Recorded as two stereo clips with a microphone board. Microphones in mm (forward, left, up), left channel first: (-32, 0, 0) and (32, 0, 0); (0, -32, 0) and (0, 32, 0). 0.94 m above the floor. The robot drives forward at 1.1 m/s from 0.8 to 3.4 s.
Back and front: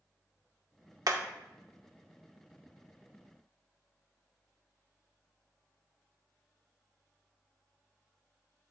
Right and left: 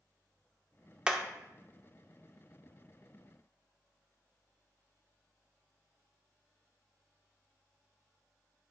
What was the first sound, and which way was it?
Hammering, 15° left.